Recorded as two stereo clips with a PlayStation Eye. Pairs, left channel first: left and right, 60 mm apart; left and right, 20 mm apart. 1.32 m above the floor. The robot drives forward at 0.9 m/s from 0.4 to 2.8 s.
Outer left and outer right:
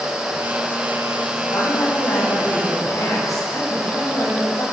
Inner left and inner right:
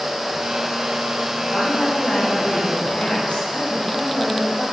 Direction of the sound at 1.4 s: 55° left (ahead or behind).